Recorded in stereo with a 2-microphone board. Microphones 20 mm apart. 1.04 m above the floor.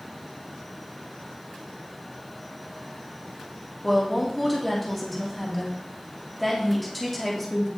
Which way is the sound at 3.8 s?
5° left (ahead or behind).